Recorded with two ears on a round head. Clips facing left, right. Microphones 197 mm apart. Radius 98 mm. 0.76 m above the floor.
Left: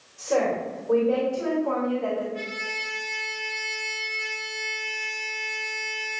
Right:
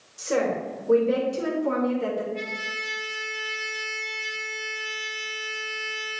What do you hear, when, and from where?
0.2 s a woman speaking: 35° right (ahead or behind), 3.5 m; by 2.2 s 55° right (ahead or behind), 3 m
2.3 s a trumpet: 10° left (ahead or behind), 2.5 m